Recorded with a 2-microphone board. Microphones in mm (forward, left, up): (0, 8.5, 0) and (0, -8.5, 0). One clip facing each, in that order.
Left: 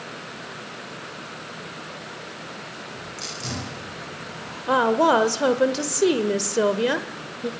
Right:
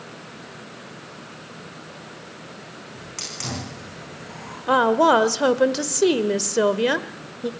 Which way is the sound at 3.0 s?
50° right (ahead or behind).